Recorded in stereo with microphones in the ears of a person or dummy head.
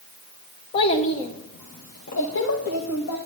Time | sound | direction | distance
0.7 | a child speaking | 30° left (ahead or behind) | 0.9 m